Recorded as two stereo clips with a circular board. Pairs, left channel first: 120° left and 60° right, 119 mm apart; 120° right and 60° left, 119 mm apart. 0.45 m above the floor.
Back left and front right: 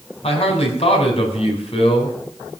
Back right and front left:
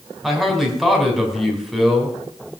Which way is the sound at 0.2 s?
150° left.